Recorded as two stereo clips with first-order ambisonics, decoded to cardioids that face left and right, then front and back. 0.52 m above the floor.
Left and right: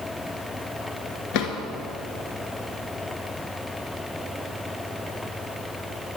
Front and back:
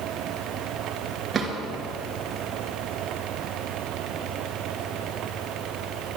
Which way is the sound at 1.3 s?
105° left.